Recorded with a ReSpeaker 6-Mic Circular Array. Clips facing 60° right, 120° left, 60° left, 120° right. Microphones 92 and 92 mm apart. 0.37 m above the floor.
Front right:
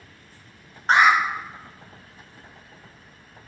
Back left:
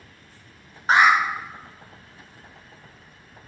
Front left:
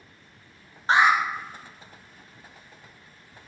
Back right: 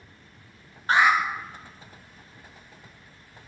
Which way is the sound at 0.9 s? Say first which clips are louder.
Even, front left 1 dB; 35° left.